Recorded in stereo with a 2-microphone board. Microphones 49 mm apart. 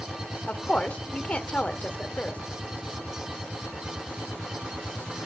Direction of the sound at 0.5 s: 30° left (ahead or behind).